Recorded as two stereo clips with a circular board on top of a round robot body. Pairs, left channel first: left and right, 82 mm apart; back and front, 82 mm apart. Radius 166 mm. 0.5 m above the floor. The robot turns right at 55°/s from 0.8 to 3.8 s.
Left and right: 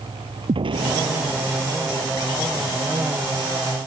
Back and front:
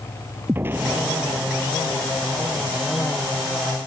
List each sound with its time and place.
0.5 s an explosion: 65° right; by 2.3 s 15° left